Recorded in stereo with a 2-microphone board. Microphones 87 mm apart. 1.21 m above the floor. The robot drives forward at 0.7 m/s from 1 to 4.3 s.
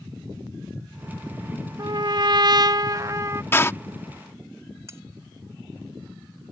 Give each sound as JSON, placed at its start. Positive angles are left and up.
{"t": 1.8, "sound": "a trumpet", "side_deg": -45}
{"t": 3.5, "sound": "a door slam", "side_deg": 25}
{"t": 4.9, "sound": "cutlery clinking", "side_deg": -30}